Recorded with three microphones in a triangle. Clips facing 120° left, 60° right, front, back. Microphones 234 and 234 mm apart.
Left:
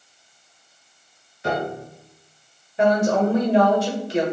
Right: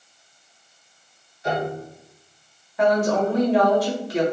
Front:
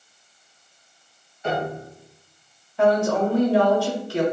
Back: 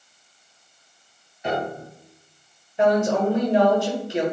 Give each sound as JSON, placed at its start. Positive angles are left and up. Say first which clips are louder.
{"t": 1.4, "sound": "a piano", "louder": "even, even", "azimuth_deg": 105, "distance_m": 1.3}
{"t": 2.8, "sound": "a woman speaking", "louder": "left 1 dB, even", "azimuth_deg": 140, "distance_m": 1.2}